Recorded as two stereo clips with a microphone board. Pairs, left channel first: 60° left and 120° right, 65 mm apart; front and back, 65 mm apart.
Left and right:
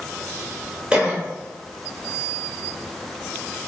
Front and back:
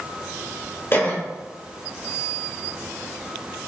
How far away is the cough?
About 1.9 m.